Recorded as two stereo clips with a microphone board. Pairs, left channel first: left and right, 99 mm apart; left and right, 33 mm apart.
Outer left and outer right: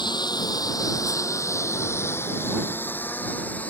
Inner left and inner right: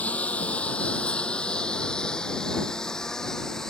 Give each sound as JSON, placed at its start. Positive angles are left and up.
{"t": 0.0, "sound": "a lawn mower", "side_deg": 45}